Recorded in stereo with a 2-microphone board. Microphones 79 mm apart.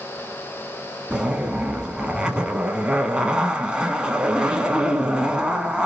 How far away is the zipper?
About 0.6 m.